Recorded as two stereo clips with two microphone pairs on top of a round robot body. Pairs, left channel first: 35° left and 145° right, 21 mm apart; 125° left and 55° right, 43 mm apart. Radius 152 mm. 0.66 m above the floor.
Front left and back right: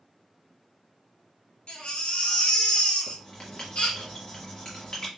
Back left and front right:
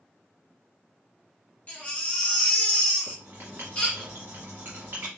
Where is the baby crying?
60° left, 1.7 m.